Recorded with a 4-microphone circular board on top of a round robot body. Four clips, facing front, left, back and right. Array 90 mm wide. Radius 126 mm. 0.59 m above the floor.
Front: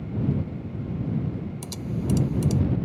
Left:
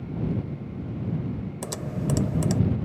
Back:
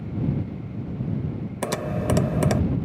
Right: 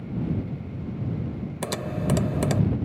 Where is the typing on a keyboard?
165° right.